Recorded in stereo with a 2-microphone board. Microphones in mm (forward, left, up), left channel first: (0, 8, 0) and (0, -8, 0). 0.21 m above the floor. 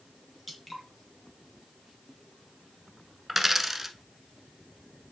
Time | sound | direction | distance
0.5 | dripping | centre (ahead or behind) | 2 m
3.3 | a dropped coin | 15° right (ahead or behind) | 0.8 m